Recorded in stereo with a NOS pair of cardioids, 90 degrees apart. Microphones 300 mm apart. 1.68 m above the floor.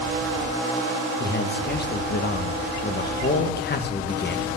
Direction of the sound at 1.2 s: 35° left.